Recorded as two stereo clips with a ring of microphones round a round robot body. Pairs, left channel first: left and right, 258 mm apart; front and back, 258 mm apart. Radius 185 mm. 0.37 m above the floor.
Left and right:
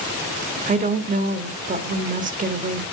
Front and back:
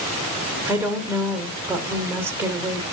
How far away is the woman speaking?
About 0.9 m.